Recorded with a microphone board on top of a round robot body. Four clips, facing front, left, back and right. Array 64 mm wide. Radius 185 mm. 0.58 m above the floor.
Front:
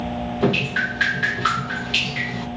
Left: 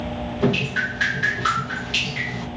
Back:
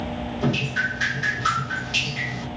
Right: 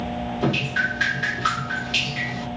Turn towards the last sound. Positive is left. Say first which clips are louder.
# left 2 dB, front 3 dB
turn(degrees=0)